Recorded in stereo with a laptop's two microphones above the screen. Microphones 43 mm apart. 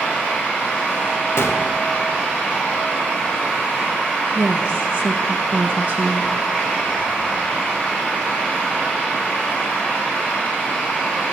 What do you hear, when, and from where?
0.0 s a fan: 30° left (ahead or behind), 7 m
1.4 s a gunshot: 70° left (ahead or behind), 1.1 m
4.3 s a woman speaking: 30° right (ahead or behind), 0.7 m